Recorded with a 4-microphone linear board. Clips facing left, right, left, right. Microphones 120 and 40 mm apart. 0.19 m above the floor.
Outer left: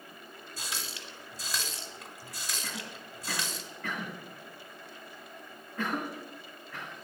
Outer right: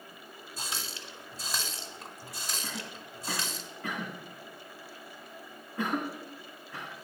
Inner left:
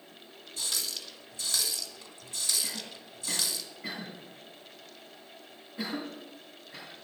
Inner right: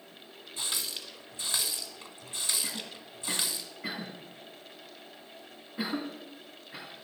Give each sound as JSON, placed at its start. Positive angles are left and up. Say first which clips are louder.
{"t": 0.6, "sound": "a running tap", "louder": "outer right 1 dB, even", "side_deg": -35, "distance_m": 1.0}
{"t": 2.6, "sound": "a cough", "louder": "outer right 1 dB, inner right 1 dB", "side_deg": -20, "distance_m": 2.0}